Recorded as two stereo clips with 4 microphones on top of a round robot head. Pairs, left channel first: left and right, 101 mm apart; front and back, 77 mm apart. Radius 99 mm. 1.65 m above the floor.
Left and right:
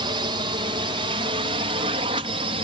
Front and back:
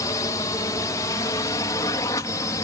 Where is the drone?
50° right; by 2.6 s 55° right.